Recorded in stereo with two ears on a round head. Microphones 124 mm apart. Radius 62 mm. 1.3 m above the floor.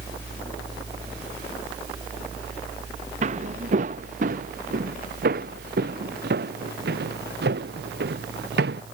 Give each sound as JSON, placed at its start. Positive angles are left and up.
{"t": 3.2, "sound": "footsteps", "side_deg": -50}